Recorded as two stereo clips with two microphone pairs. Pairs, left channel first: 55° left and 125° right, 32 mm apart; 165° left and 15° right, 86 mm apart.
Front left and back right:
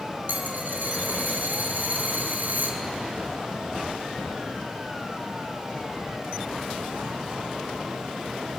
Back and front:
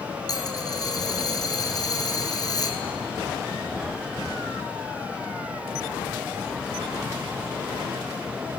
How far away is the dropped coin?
About 1.1 m.